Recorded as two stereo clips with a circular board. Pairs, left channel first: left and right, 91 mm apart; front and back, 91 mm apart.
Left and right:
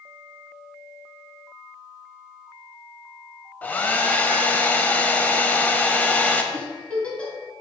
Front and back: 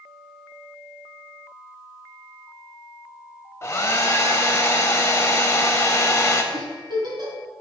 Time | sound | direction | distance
3.6 | a hair dryer | 30° left | 0.6 m
6.5 | a giggle | 165° left | 1.4 m